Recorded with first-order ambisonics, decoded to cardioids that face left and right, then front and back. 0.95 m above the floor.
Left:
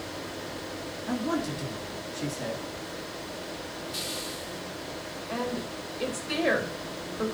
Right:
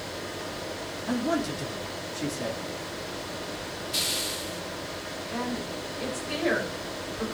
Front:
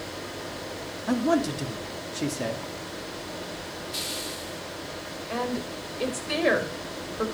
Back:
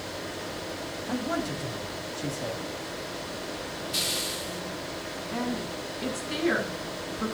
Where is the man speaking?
5° right, 2.5 m.